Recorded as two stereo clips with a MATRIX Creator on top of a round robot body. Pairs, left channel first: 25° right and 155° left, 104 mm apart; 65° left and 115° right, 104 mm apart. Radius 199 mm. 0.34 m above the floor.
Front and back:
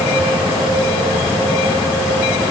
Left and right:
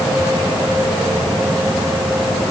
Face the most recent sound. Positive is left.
No sound to turn to.